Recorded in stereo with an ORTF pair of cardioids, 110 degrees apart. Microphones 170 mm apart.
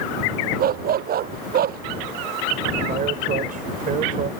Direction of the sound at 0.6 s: 60° right.